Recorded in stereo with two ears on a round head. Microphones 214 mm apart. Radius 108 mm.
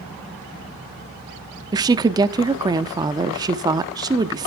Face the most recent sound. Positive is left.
turn(degrees=-15)  # may be behind; listen again after turning